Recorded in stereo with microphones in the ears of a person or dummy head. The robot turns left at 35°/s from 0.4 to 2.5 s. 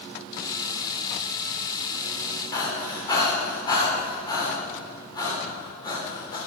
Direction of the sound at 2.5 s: 25° left (ahead or behind).